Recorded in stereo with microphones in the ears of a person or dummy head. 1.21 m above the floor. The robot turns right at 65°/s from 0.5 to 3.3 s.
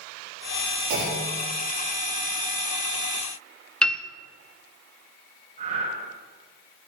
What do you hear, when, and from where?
0.9 s a clunk: 120° right, 4.5 m; by 1.5 s 80° right, 4.5 m
3.8 s a piano: 5° left (ahead or behind), 0.5 m
5.6 s breathing: 40° right (ahead or behind), 6.5 m